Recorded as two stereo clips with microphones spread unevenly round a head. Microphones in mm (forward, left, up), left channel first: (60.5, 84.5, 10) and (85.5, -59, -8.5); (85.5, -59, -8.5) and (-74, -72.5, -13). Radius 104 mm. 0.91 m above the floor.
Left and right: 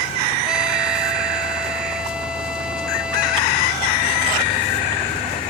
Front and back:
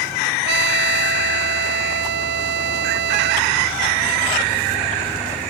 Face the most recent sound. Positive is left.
turn(degrees=-165)